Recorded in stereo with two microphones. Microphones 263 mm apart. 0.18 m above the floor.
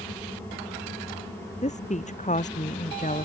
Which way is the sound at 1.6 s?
30° left (ahead or behind).